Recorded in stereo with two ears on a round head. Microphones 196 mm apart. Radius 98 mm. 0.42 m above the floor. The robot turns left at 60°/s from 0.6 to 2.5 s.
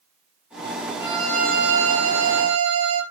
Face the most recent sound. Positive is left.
turn(degrees=-100)